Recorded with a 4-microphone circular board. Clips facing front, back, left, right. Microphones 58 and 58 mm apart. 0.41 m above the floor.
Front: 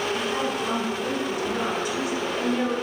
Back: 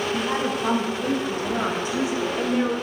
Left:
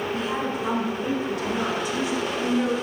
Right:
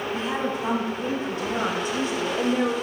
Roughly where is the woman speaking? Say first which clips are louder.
Back 2 dB, even; behind right.